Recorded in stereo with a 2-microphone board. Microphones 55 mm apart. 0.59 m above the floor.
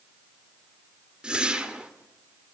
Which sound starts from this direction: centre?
A whoosh, at 1.2 s.